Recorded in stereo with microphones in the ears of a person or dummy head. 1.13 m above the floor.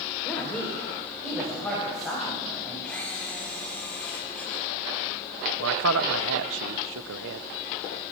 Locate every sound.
0.2 s a woman speaking: 10° left (ahead or behind), 4 m; by 2.7 s 5° left (ahead or behind), 7.5 m
2.8 s a camera shutter: 10° left (ahead or behind), 6 m
5.6 s a man speaking: 65° right (ahead or behind), 1.1 m